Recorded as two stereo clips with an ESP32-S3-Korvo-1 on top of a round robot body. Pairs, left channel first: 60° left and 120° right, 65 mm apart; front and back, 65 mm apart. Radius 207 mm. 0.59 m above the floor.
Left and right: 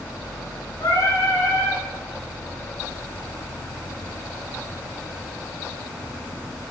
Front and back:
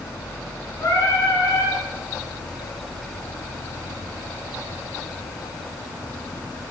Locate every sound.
0.8 s singing: 45° left, 3 m